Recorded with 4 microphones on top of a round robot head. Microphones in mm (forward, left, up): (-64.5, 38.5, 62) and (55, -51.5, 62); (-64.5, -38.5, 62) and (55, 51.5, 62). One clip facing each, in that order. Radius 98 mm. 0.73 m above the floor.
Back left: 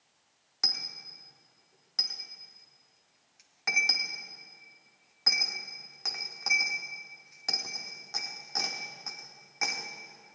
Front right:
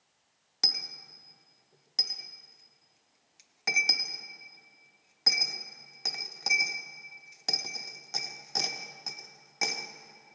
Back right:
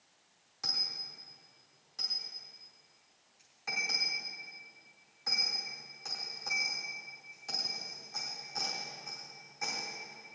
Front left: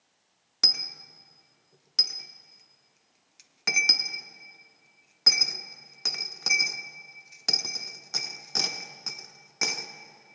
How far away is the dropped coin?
About 0.7 m.